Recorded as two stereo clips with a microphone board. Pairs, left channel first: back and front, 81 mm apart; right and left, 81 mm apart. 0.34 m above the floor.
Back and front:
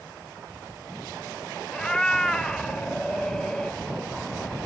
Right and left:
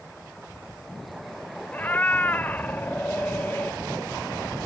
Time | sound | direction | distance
1.7 | a cat meowing | 110° right | 0.5 m